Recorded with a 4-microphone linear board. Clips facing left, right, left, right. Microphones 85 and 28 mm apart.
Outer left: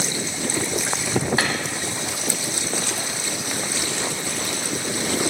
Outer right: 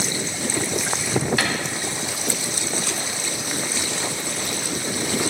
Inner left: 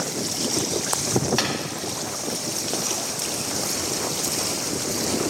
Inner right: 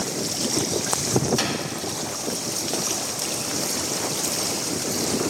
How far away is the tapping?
About 1.9 m.